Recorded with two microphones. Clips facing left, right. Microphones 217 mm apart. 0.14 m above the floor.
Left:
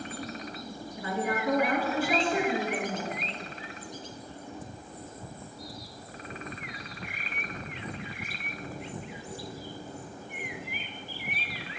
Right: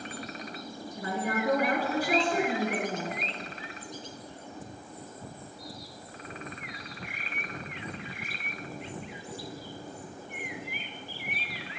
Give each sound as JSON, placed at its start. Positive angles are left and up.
{"t": 1.0, "sound": "a woman speaking", "side_deg": -40, "distance_m": 1.5}